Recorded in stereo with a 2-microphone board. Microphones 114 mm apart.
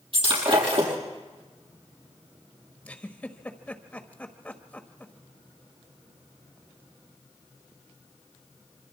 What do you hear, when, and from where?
0.1 s breaking glass: 55° right (ahead or behind), 6.5 m
2.9 s a giggle: 10° left (ahead or behind), 1.4 m